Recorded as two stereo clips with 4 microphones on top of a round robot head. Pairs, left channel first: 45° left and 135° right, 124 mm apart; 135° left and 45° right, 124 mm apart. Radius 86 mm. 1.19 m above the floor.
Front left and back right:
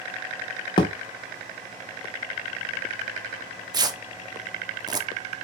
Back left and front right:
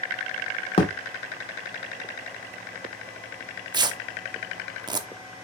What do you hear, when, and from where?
0.8 s a thud: 95° left, 0.6 m
3.7 s tearing paper: 90° right, 0.6 m